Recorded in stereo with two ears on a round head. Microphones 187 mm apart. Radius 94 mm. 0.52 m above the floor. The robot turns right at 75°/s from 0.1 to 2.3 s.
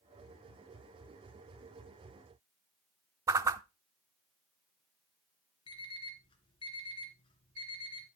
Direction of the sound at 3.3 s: 15° right (ahead or behind).